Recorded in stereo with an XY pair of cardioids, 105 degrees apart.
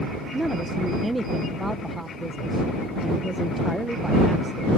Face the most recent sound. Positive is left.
turn(degrees=-10)